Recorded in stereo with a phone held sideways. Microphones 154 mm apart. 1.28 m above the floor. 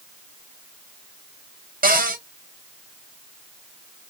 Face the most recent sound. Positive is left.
turn(degrees=-65)  # may be behind; listen again after turning